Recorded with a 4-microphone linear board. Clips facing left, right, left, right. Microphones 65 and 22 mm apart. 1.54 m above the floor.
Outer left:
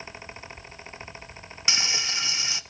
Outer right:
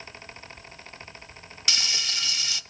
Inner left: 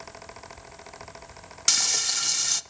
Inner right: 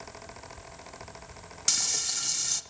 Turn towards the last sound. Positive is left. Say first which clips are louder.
# outer left 2 dB, inner left 5 dB
turn(degrees=25)  # may be behind; listen again after turning